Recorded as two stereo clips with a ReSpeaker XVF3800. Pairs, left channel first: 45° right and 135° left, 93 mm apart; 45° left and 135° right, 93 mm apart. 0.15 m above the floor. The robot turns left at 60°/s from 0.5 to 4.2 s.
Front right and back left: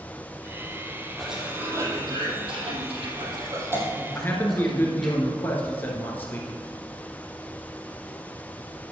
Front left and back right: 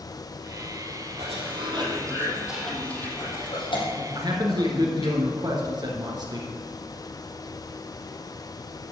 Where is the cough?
135° right, 4 m; by 5.2 s 45° left, 4 m.